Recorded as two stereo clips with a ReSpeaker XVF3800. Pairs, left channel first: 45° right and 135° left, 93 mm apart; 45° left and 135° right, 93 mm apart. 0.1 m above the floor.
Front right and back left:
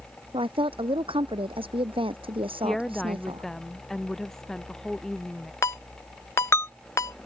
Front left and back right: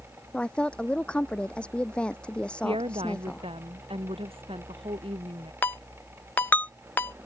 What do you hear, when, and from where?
0.3 s a woman speaking: 125° left
2.6 s a woman speaking: 130° right
5.6 s a ringtone: 10° right